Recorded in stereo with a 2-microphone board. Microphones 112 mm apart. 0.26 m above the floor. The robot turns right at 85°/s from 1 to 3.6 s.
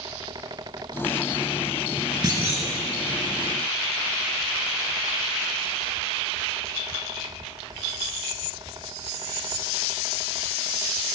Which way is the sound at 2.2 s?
35° right.